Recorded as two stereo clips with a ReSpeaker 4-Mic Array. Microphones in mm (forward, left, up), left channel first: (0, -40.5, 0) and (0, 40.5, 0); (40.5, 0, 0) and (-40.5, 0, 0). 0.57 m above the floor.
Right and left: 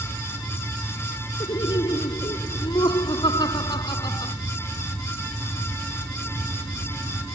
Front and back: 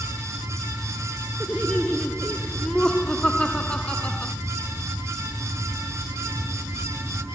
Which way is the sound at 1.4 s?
80° right.